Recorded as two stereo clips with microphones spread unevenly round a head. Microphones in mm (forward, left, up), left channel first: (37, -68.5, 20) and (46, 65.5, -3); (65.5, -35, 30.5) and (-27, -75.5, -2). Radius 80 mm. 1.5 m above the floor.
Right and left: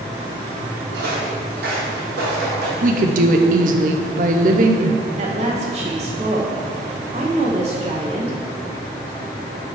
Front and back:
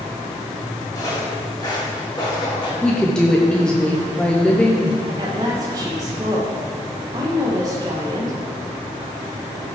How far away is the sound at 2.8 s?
About 0.9 m.